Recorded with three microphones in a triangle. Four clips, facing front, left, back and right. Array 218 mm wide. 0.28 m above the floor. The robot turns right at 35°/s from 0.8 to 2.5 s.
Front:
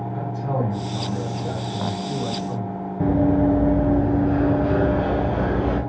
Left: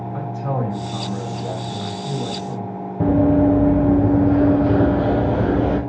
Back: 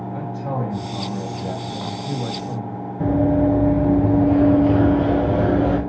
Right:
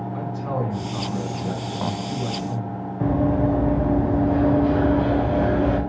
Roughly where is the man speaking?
Left.